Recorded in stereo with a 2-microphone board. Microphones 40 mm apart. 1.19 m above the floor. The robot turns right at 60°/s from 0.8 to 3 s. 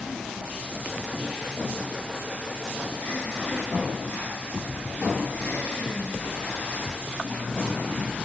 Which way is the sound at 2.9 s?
80° left.